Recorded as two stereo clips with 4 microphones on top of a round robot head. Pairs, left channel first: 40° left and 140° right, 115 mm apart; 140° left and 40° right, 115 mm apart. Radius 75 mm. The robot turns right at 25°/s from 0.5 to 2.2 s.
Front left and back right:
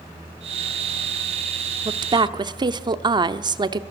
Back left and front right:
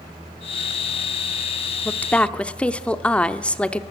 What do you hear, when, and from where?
1.9 s a woman speaking: 155° right, 0.8 m; by 3.8 s 145° right, 0.8 m